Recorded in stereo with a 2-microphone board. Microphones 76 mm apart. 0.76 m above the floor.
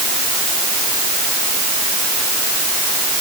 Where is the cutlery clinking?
I don't hear cutlery clinking.